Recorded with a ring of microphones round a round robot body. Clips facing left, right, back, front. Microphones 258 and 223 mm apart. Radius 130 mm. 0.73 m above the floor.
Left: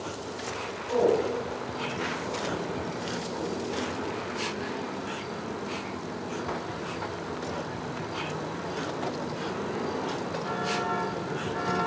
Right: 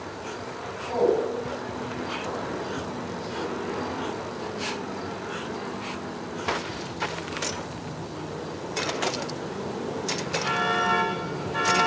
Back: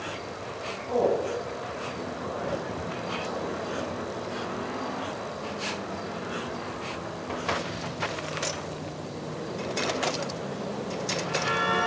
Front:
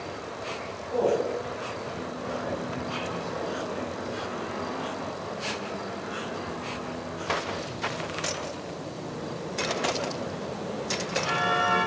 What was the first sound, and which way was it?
A man speaking, 165° left.